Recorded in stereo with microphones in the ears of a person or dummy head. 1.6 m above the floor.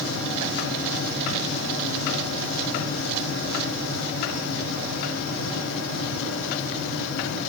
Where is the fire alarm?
No fire alarm in this recording.